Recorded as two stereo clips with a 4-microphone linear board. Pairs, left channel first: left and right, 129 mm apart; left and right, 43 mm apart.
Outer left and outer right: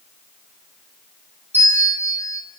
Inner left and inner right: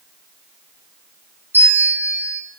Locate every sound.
1.5 s a bell: 60° right (ahead or behind), 3.5 m